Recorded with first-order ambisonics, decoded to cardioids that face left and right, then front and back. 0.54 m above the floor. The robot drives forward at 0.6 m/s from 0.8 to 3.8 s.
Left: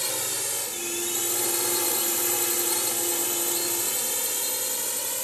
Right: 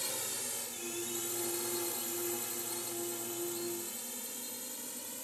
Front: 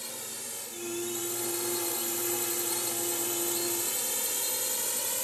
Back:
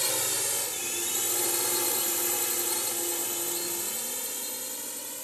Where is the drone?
140° left; by 5.2 s 60° left.